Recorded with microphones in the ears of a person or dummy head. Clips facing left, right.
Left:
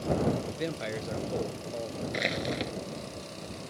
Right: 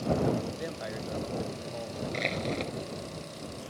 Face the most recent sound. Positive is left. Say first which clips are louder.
# even
turn(degrees=10)  # may be behind; listen again after turning